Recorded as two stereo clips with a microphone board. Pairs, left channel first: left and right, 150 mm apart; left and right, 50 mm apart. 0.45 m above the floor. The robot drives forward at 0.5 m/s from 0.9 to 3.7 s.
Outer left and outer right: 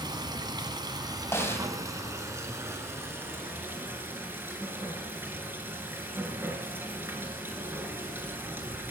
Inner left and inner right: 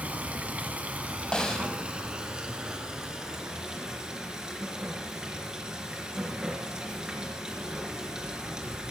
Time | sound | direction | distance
0.0 | running water | 30° right (ahead or behind) | 1.5 m
1.3 | a snare drum | 15° left (ahead or behind) | 1.9 m